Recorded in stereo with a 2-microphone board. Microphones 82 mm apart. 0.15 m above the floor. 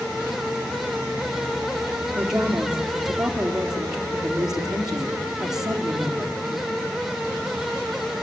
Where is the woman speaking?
10° right (ahead or behind), 3.5 m.